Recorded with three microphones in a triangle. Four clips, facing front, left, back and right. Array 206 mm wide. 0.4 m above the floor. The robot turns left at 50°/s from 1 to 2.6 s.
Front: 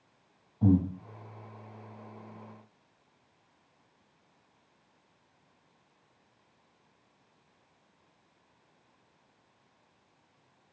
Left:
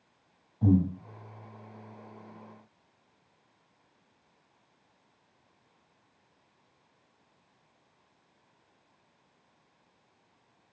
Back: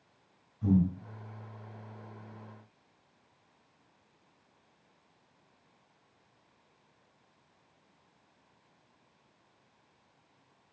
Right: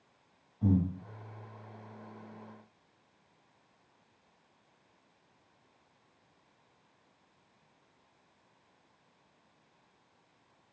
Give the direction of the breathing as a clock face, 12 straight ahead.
11 o'clock.